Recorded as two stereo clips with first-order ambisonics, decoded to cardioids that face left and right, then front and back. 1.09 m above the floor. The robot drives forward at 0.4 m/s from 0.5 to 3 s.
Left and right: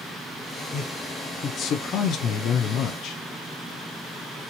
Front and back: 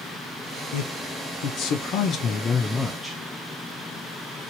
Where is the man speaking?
25° left, 1.0 m; by 3.2 s 90° left, 0.5 m.